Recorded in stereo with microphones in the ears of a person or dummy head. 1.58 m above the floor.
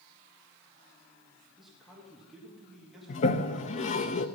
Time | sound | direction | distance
1.6 | a man speaking | centre (ahead or behind) | 3 m
3.1 | a toilet flushing | 45° left (ahead or behind) | 1.0 m